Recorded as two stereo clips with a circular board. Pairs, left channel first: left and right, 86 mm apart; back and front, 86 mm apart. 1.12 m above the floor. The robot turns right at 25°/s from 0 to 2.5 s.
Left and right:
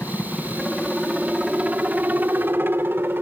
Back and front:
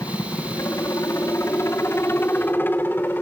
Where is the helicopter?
165° left; by 3.2 s 135° right.